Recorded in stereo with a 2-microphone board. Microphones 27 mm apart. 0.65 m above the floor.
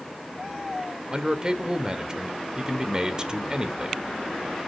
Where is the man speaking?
25° right (ahead or behind), 1.8 m.